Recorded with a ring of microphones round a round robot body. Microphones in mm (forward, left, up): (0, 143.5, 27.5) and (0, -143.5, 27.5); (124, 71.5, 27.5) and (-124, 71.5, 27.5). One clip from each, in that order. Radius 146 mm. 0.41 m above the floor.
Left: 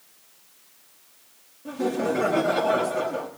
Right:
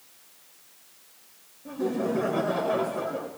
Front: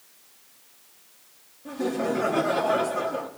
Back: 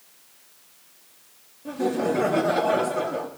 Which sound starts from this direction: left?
Laughter, at 1.6 s.